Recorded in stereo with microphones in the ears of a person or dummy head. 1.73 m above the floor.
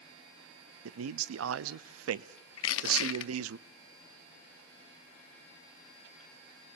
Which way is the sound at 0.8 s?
85° right.